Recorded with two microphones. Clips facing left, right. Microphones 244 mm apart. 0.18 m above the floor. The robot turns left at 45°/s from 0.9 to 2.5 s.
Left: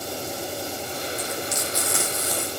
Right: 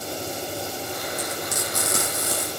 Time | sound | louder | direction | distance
1.2 | frying | even | 100° right | 9.5 m